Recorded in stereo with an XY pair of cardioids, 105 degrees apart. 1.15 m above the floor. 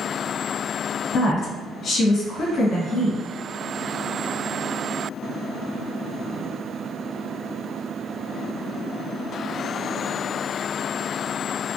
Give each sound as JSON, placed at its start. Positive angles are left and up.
{"t": 1.1, "sound": "a woman speaking", "azimuth_deg": 60, "distance_m": 1.6}